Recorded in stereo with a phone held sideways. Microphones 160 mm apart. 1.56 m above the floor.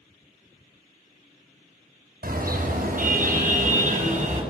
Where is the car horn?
65° right (ahead or behind), 7 m; by 4.4 s 45° right (ahead or behind), 7 m.